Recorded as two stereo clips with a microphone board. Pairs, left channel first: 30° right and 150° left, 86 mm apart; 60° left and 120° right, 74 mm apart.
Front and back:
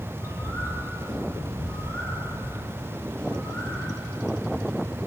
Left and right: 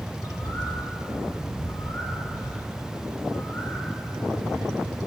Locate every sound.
0.1 s a bird: 25° left, 3.5 m